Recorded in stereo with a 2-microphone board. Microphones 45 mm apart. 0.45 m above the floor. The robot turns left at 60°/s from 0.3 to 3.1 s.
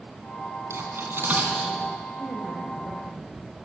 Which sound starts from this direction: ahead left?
A woman speaking, at 2.2 s.